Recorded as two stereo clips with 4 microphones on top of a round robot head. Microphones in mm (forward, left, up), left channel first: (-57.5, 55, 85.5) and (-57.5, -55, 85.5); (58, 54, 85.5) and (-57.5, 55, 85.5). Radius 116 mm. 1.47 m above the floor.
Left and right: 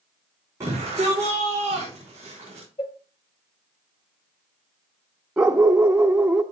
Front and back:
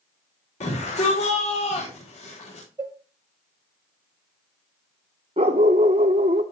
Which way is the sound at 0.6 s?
20° right.